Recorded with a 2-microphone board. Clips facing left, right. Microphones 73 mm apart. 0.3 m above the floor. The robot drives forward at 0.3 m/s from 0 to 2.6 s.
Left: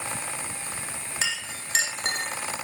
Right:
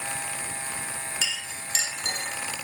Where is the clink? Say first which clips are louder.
Left 2 dB; 50° left (ahead or behind), 2 m; by 2.3 s 60° left (ahead or behind), 1.8 m.